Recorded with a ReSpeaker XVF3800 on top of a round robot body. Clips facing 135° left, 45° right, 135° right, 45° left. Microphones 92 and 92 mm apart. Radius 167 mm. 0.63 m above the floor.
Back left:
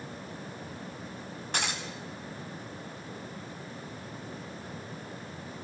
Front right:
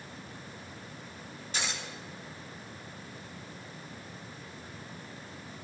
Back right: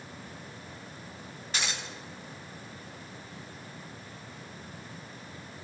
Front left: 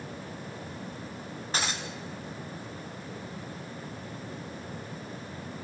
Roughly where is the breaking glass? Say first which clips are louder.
Back left 3 dB, front left 3 dB; left.